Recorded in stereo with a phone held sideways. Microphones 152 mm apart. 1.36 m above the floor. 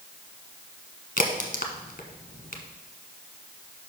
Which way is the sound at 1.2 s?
55° left (ahead or behind).